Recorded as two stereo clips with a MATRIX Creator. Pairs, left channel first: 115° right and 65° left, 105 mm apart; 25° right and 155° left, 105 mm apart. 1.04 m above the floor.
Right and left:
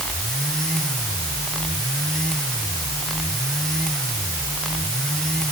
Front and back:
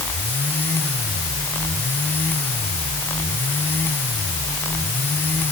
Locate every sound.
Only background noise.